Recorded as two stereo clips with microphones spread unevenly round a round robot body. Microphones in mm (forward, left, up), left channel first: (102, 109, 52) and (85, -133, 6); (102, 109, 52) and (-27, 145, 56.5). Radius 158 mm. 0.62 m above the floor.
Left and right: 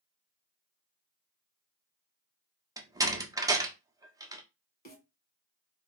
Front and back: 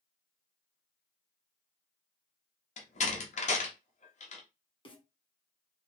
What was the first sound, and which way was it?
A door slam, 25° right.